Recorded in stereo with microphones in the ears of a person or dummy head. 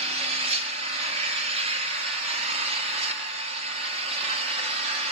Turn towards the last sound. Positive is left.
turn(degrees=-35)  # may be behind; listen again after turning